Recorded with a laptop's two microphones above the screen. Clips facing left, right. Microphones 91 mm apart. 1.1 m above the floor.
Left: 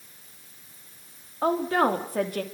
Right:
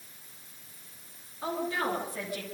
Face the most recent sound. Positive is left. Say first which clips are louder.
# left 9 dB
turn(degrees=55)  # may be behind; listen again after turning